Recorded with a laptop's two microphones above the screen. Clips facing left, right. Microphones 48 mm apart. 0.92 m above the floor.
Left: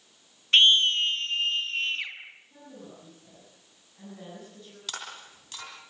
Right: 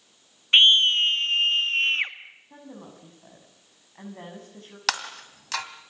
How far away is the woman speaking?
About 8 m.